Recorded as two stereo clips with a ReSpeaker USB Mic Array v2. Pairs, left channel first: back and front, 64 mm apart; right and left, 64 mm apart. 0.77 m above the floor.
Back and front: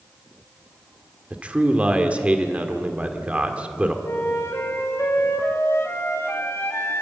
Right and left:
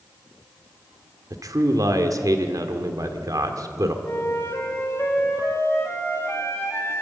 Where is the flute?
135° right, 3 m.